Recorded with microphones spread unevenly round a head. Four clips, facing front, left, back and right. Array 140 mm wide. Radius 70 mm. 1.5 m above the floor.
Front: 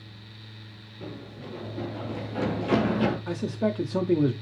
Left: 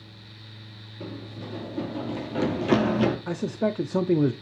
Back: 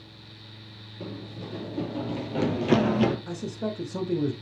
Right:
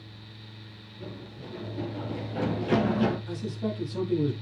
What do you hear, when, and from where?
1.0 s running footsteps: 135° left, 3.5 m; by 3.2 s 125° left, 2.5 m
3.3 s a man speaking: 70° left, 0.7 m